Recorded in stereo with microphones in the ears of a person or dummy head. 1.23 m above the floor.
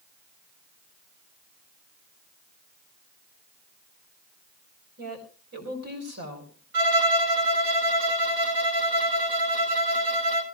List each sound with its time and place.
5.0 s a woman speaking: 55° right (ahead or behind), 4 m
6.7 s a violin: 75° right (ahead or behind), 2.5 m